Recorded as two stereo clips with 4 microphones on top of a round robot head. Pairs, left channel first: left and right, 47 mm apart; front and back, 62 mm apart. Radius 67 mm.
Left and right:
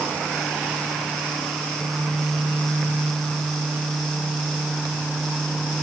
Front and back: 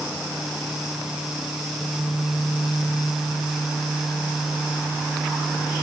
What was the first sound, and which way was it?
Only background noise.